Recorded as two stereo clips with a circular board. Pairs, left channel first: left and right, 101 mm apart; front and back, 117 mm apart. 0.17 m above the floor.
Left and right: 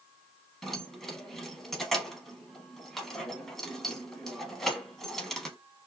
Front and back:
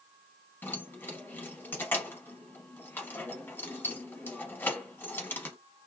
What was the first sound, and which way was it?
Keys jangling, 10° left.